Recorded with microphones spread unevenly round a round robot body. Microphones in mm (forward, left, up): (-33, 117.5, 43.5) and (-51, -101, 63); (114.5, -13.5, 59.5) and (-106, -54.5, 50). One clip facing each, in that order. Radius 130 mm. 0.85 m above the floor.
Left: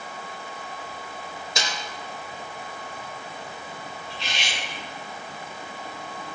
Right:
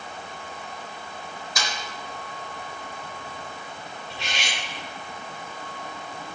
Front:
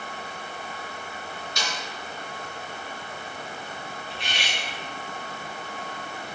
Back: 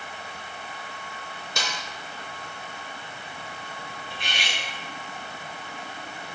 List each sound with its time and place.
1.6 s a snare drum: 150° left, 0.8 m
4.1 s cutlery clinking: 130° right, 2.5 m